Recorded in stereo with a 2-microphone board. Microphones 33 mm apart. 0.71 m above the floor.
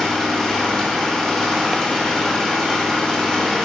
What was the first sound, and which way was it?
An engine running, 10° left (ahead or behind).